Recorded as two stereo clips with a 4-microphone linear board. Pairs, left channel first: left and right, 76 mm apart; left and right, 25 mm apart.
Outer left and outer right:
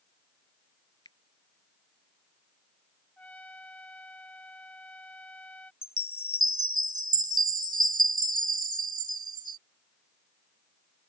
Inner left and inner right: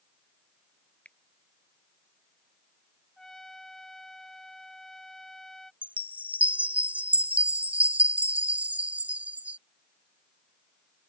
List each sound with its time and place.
1.1 s a finger snap: 75° left (ahead or behind)
3.2 s a trumpet: 20° left (ahead or behind)
5.8 s a chime: 80° right